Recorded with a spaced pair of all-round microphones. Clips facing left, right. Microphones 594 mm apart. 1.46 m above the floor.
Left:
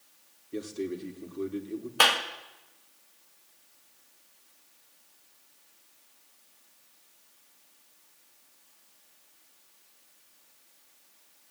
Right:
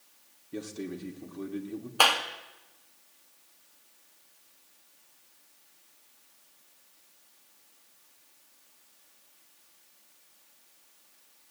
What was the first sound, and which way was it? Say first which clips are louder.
A man speaking: left 3 dB; 20° right (ahead or behind).